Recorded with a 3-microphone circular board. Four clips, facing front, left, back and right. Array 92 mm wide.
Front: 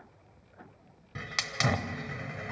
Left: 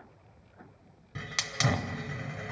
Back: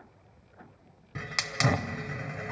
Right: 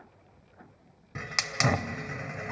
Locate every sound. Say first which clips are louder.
1.1 s a hiss: right 3 dB, back 2 dB; 110° right, 0.7 m